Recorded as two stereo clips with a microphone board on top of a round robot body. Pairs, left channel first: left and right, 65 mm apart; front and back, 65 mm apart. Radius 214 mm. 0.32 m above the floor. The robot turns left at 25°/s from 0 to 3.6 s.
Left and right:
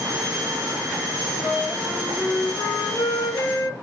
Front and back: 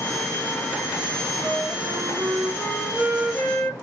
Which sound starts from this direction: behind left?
A flute, at 1.4 s.